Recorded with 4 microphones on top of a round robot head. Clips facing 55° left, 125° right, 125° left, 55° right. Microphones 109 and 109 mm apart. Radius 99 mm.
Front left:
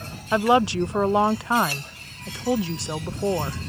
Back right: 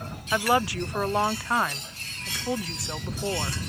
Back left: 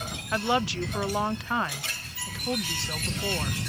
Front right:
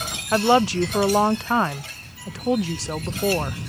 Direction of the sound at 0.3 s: 10° right.